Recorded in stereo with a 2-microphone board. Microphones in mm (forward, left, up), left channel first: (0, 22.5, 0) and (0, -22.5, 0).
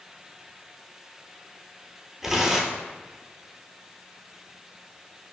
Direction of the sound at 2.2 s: 5° right (ahead or behind).